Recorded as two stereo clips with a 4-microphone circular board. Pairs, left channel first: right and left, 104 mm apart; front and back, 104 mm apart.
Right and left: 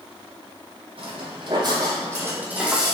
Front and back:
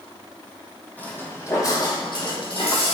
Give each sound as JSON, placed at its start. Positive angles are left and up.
{"t": 1.0, "sound": "footsteps", "azimuth_deg": 75, "distance_m": 2.5}